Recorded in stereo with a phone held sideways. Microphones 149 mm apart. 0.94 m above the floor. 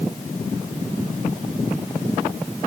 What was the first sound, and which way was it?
Only background noise.